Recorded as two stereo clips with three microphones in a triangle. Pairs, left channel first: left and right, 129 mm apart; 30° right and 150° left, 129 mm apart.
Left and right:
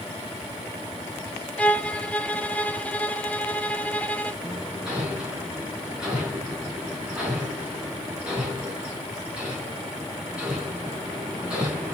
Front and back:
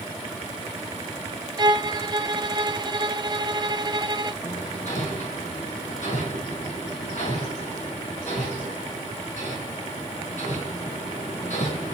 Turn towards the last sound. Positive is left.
turn(degrees=-10)